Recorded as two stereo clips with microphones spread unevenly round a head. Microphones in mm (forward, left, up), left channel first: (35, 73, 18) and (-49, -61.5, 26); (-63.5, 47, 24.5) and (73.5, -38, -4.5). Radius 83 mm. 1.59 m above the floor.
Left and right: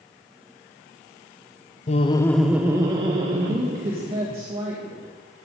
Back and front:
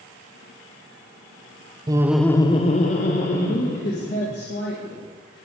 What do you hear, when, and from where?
1.9 s laughter: 35° left, 0.6 m; by 4.3 s 175° right, 2 m
3.3 s a woman speaking: straight behind, 2.0 m